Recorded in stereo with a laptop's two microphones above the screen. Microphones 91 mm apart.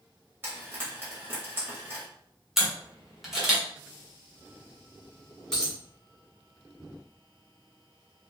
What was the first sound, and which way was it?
Frying, 25° right (ahead or behind).